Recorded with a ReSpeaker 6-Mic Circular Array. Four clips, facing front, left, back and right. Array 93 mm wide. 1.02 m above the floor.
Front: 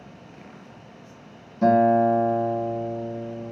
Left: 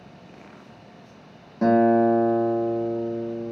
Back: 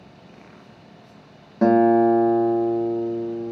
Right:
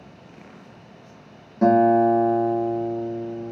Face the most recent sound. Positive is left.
turn(degrees=180)